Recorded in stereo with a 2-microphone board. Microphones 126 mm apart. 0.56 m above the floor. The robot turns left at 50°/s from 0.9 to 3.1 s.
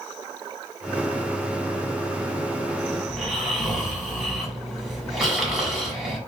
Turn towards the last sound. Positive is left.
turn(degrees=-5)  # may be behind; listen again after turning